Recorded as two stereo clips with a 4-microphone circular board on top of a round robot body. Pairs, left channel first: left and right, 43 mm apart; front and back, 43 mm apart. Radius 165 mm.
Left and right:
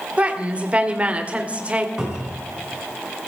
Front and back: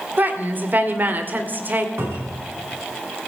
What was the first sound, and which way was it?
A woman speaking, 145° right.